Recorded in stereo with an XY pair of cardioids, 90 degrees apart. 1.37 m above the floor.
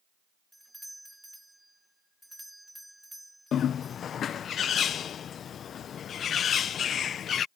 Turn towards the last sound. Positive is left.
turn(degrees=65)